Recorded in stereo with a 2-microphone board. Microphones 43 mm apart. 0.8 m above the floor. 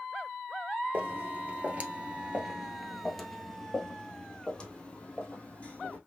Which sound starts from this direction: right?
Footsteps, at 0.9 s.